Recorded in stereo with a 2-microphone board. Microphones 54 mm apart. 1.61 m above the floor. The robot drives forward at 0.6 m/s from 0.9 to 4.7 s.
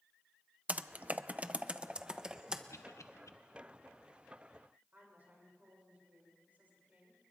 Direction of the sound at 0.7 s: 30° right (ahead or behind).